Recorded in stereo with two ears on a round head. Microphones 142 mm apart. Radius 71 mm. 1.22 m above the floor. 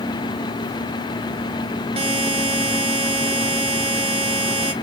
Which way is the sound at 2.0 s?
35° right (ahead or behind).